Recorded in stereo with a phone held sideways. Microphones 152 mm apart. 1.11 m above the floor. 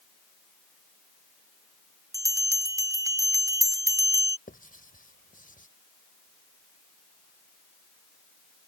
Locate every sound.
2.1 s a bell: 25° right (ahead or behind)
4.5 s writing: 70° left (ahead or behind)